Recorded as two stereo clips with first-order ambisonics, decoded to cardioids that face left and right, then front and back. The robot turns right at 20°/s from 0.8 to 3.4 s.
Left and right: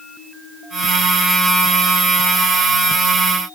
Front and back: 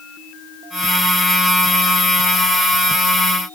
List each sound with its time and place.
Only background noise.